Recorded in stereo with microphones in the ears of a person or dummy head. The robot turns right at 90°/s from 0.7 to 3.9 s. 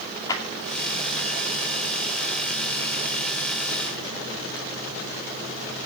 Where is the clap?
25° left (ahead or behind), 2.5 m.